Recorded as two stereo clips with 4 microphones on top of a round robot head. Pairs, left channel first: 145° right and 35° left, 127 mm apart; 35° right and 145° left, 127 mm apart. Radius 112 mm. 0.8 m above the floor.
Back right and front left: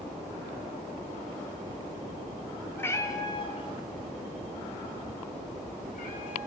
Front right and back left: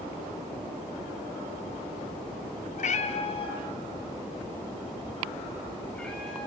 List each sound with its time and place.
2.8 s a cat meowing: 65° right, 1.6 m; by 6.5 s 120° right, 4.5 m